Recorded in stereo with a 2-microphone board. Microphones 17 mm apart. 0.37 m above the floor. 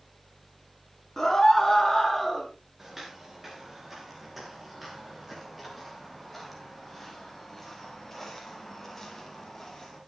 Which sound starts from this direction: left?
A scream, at 1.2 s.